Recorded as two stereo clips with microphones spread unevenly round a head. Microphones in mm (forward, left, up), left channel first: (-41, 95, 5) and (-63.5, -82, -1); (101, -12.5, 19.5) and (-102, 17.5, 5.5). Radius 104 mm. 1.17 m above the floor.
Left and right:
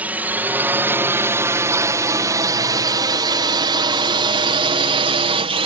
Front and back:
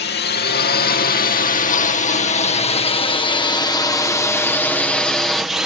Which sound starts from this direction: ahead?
A drone, at 0.0 s.